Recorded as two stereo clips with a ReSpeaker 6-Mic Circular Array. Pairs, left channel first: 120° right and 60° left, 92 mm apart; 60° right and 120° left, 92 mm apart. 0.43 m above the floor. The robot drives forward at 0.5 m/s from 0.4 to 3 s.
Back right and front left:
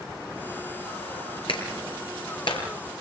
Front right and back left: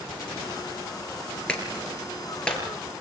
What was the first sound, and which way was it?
A clap, 140° right.